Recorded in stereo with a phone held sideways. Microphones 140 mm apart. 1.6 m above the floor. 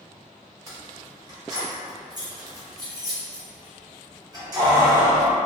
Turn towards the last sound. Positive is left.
turn(degrees=-25)  # may be behind; listen again after turning